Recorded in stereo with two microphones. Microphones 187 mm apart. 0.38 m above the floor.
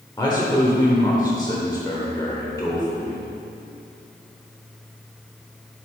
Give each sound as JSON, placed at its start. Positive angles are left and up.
{"t": 0.2, "sound": "a man speaking", "side_deg": 20, "distance_m": 1.1}